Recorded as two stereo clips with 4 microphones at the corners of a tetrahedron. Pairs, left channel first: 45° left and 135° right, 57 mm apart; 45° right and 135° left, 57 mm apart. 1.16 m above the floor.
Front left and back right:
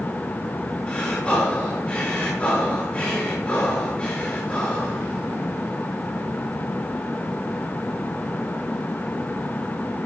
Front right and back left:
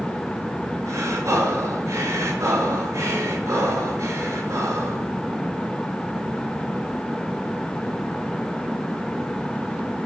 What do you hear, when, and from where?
0.9 s breathing: 115° left, 7.5 m